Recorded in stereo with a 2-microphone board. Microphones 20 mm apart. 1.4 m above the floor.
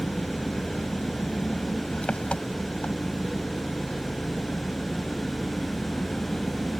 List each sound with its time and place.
0.0 s an engine running: 85° left